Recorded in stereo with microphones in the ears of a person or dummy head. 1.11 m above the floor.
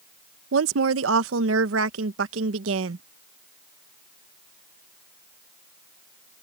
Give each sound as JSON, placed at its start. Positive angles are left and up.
{"t": 0.5, "sound": "a woman speaking", "side_deg": -70}